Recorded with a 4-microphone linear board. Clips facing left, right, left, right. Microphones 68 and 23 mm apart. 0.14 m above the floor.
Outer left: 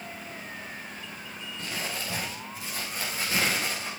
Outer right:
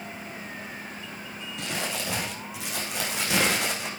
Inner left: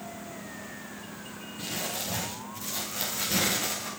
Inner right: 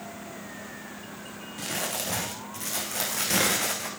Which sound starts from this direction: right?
Crumpling, at 1.6 s.